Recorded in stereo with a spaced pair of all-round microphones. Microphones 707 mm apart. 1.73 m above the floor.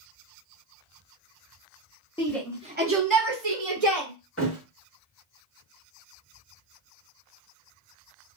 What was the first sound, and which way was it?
A shout, 10° left (ahead or behind).